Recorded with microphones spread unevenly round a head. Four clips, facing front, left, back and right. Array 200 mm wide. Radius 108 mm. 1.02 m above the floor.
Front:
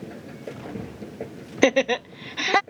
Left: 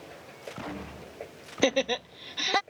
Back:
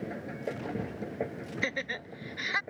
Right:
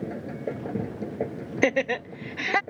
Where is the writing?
No writing in this recording.